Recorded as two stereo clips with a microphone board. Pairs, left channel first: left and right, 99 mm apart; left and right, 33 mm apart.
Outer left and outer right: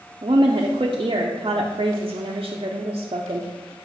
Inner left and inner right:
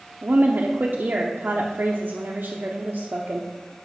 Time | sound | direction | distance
0.2 | a woman speaking | 55° right (ahead or behind) | 0.6 m